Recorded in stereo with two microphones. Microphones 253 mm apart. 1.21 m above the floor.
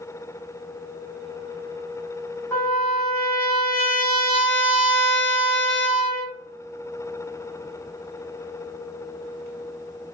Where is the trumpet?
10° left (ahead or behind), 1.0 m.